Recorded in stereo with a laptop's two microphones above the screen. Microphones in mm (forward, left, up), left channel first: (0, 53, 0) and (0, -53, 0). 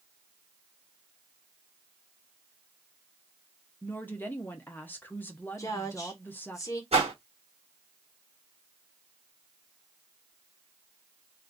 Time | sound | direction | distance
3.8 | a woman speaking | 20° left (ahead or behind) | 0.6 m
5.6 | a woman speaking | 30° left (ahead or behind) | 0.9 m
6.9 | a whoosh | 75° right (ahead or behind) | 1.1 m